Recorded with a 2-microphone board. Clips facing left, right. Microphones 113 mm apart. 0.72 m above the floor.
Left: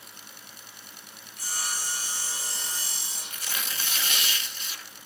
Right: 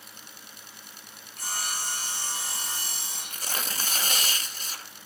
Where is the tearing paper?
40° right (ahead or behind), 0.6 m.